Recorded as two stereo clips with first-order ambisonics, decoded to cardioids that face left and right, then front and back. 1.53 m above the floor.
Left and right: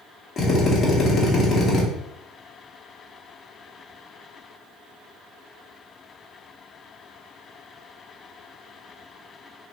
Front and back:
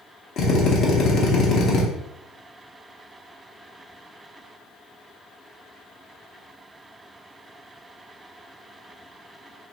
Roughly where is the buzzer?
I don't hear a buzzer.